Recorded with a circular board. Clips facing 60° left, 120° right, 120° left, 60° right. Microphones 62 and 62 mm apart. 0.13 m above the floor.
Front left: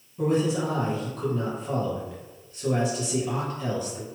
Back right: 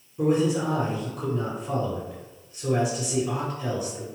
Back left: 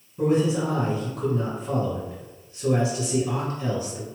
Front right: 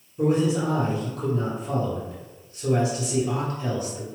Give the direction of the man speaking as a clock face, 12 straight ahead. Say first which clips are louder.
Back right 2 dB, even; 7 o'clock.